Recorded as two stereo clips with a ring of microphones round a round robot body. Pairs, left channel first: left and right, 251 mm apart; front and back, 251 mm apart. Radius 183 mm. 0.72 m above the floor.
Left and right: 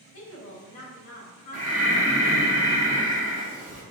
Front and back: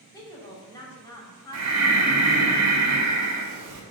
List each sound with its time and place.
0.1 s a woman speaking: 75° left, 2.5 m
1.5 s breathing: 175° right, 1.0 m